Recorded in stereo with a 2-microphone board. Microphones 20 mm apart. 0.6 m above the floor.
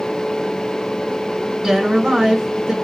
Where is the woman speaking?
40° right (ahead or behind), 3 m.